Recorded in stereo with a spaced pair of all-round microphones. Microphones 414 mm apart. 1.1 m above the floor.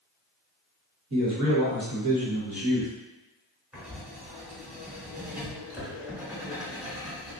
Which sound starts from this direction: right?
A man speaking, at 1.1 s.